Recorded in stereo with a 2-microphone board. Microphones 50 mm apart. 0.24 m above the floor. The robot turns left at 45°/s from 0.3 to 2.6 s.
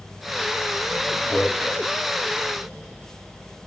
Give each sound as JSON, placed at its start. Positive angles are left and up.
{"t": 1.3, "sound": "a man speaking", "side_deg": 30, "distance_m": 1.4}